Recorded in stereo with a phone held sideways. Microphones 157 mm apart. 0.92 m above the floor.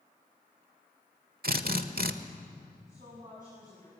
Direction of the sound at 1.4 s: 75° right (ahead or behind).